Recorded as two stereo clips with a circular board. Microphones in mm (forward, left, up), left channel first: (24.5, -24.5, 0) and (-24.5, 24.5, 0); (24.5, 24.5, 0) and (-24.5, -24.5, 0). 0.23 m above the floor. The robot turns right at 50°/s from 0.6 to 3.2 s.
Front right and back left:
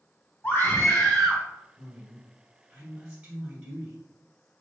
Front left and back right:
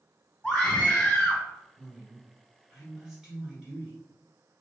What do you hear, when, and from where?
0.4 s a scream: 15° right, 1.5 m; by 1.4 s 30° left, 1.5 m
1.8 s a woman speaking: 95° left, 1.3 m; by 4.0 s 170° left, 1.3 m